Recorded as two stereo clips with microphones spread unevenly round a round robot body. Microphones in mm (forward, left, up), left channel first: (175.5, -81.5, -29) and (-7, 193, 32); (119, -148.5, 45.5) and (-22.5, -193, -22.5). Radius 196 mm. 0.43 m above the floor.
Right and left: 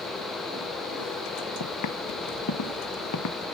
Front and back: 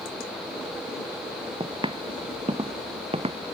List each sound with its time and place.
1.6 s footsteps: 105° right; by 3.4 s 110° right